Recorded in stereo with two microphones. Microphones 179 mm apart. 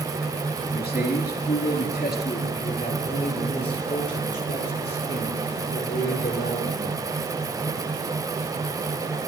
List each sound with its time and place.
0.7 s a man speaking: 65° left (ahead or behind), 5 m; by 7.0 s 75° left (ahead or behind), 10.5 m